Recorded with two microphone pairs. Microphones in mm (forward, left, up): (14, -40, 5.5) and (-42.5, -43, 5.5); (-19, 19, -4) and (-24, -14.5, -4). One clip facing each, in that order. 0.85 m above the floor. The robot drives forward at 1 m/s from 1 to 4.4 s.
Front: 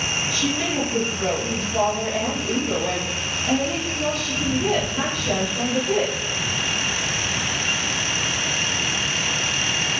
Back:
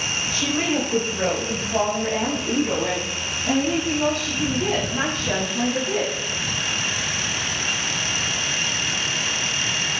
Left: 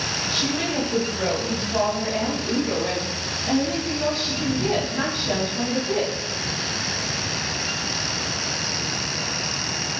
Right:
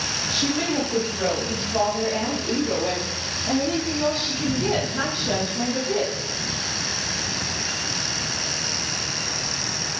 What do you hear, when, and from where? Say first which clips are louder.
0.3 s a woman speaking: back 3 dB, right 2 dB; 170° left, 3 m; by 6.3 s 175° left, 6.5 m